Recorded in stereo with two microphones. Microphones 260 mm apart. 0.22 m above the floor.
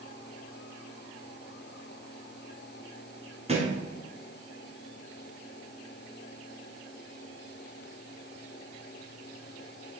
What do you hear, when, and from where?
3.5 s a thud: 25° right (ahead or behind), 1.7 m